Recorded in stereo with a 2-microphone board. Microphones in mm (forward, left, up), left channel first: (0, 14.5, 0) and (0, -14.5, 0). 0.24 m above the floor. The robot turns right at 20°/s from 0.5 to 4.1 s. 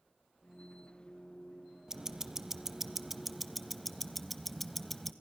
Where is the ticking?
15° right (ahead or behind), 1.0 m; by 5.1 s 5° left (ahead or behind), 1.0 m.